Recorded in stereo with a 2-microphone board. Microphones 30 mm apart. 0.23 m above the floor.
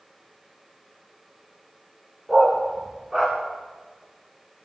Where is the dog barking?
25° right (ahead or behind), 6.5 m; by 3.4 s 15° right (ahead or behind), 6.5 m.